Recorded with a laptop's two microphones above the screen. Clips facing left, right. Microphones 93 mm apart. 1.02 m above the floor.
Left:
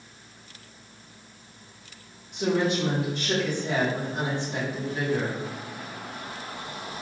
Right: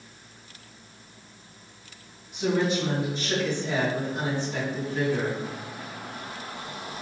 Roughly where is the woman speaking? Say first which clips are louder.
Even; left.